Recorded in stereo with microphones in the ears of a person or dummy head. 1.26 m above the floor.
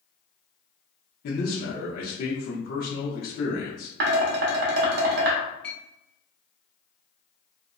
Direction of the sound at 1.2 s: 50° left (ahead or behind).